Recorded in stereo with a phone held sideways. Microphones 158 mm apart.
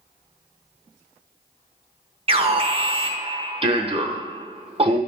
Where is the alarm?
40° right (ahead or behind), 0.9 m.